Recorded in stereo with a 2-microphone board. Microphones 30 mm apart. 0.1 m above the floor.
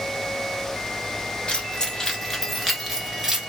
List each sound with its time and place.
1.5 s keys jangling: 30° left (ahead or behind), 0.9 m; by 3.5 s 25° right (ahead or behind), 1.0 m